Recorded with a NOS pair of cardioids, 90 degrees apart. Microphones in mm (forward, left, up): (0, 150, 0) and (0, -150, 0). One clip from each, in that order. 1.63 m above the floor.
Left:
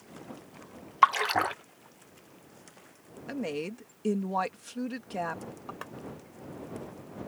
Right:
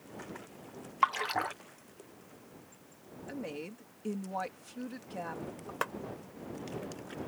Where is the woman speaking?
55° left.